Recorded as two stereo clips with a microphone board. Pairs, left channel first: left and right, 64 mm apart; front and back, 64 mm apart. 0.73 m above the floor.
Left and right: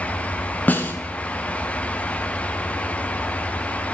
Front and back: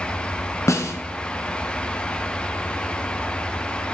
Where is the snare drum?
30° left, 1.3 m.